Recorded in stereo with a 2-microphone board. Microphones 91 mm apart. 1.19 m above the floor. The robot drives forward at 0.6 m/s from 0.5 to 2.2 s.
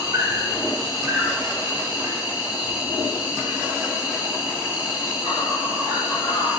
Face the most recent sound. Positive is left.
turn(degrees=-25)  # may be behind; listen again after turning